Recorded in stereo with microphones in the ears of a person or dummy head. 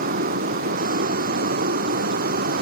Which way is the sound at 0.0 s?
45° right (ahead or behind).